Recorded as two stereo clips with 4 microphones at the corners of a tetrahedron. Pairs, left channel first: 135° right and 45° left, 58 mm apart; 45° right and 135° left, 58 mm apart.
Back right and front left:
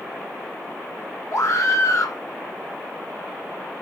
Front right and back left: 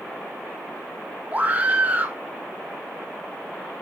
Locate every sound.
1.3 s a scream: 160° right, 1.6 m